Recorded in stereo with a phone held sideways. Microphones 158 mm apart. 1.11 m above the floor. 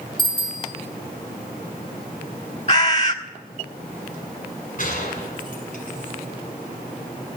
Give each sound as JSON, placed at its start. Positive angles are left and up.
{"t": 0.2, "sound": "a bicycle bell", "side_deg": 85, "distance_m": 2.0}
{"t": 2.7, "sound": "a bird", "side_deg": 45, "distance_m": 1.5}
{"t": 4.8, "sound": "a gunshot", "side_deg": 60, "distance_m": 7.0}